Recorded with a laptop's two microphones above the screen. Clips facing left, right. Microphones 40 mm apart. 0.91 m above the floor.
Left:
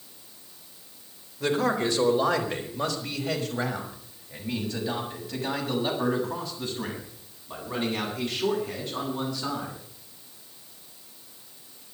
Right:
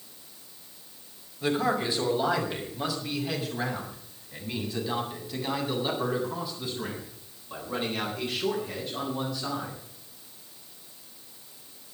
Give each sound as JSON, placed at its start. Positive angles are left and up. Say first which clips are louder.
{"t": 1.4, "sound": "a man speaking", "louder": "left 2 dB", "side_deg": 80, "distance_m": 4.0}